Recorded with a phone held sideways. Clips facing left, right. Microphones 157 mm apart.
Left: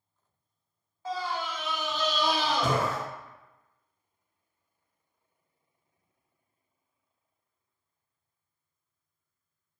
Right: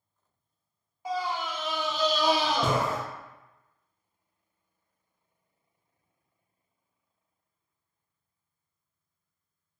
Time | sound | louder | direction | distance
1.1 | a scream | right 2 dB | 15° right (ahead or behind) | 0.8 m